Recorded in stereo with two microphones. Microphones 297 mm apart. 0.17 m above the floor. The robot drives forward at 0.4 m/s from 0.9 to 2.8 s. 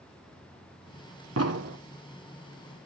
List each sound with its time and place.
1.4 s an explosion: 55° right (ahead or behind), 1.4 m